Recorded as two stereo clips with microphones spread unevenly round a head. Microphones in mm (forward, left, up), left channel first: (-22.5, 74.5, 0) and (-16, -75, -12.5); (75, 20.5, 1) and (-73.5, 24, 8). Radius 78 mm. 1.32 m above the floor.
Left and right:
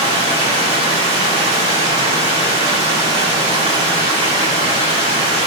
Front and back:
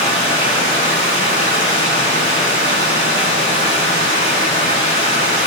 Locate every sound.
0.0 s running water: 140° right, 3 m